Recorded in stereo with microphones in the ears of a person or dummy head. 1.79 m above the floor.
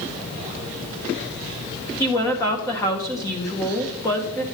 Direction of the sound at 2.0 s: 15° left (ahead or behind).